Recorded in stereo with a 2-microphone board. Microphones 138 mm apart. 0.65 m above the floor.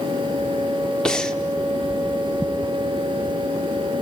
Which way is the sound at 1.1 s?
5° left (ahead or behind).